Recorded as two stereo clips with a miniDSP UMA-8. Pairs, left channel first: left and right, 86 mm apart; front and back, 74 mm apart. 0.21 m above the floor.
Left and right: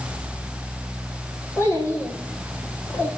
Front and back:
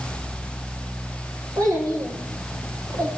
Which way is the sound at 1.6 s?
150° left.